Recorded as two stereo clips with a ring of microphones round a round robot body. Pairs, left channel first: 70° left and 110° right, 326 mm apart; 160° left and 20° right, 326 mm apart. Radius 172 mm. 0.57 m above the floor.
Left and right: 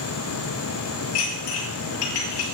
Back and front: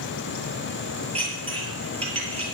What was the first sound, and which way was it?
Dishes clattering, 50° left.